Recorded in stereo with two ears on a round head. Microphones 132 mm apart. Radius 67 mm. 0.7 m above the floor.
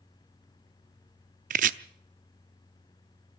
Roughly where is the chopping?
Right.